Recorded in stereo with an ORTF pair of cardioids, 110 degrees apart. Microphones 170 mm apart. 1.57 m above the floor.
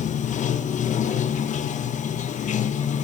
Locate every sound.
0.0 s running water: 50° left, 1.4 m